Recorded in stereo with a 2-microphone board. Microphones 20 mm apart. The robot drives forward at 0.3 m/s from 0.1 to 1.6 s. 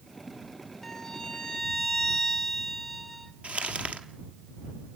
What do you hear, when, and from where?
0.8 s a violin: 20° left (ahead or behind), 0.9 m; by 3.3 s 15° left (ahead or behind), 1.1 m
3.4 s crumpling: 85° right, 1.4 m